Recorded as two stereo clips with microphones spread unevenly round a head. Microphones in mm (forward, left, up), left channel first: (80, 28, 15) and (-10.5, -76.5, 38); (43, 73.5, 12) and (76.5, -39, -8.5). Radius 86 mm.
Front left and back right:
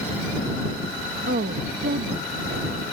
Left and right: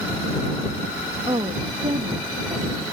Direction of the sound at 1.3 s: 120° right.